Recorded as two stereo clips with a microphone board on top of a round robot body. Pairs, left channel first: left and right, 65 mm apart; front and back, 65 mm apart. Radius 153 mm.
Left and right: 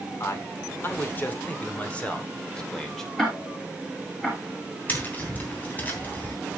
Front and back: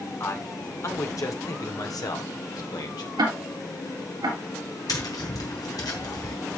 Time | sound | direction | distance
0.2 | a man speaking | 45° left | 2.5 m
3.2 | ticking | 175° left | 2.5 m
4.9 | tapping | 25° left | 3 m